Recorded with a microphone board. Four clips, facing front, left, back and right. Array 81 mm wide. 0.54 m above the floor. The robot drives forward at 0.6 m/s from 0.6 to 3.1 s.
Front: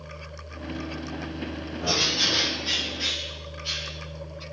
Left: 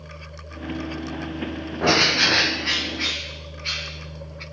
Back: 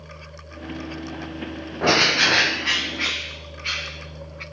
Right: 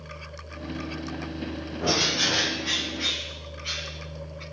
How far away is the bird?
About 0.5 m.